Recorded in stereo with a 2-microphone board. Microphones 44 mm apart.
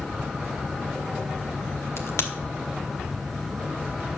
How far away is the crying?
No crying in this recording.